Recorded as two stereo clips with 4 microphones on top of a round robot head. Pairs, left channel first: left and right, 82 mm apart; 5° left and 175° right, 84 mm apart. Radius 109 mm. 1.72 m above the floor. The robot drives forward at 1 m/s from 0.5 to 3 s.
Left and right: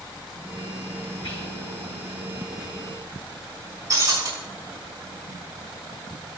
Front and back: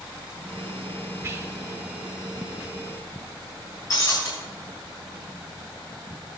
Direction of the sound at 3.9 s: 45° right.